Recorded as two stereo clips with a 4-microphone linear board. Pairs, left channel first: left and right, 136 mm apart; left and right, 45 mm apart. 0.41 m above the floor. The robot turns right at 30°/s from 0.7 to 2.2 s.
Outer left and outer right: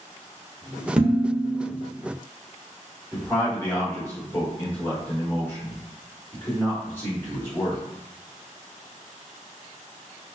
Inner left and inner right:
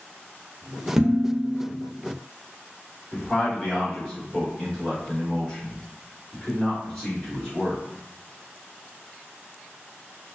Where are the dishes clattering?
5° right (ahead or behind), 0.8 m; by 1.7 s 20° right (ahead or behind), 0.8 m.